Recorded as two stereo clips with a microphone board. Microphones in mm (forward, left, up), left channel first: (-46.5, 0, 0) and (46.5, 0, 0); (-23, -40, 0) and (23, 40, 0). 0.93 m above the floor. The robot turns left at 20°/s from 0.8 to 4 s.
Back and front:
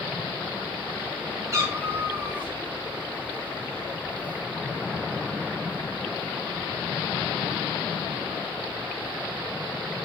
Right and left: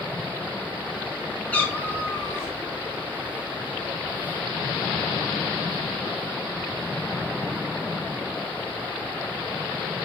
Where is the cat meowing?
50° right, 0.9 m; by 2.5 s 70° right, 0.9 m.